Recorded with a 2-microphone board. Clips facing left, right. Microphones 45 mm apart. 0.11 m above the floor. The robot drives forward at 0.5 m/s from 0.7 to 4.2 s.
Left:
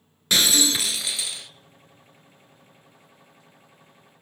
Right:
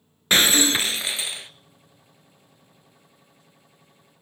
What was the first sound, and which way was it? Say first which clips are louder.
Breaking glass: right 3 dB; 35° right (ahead or behind).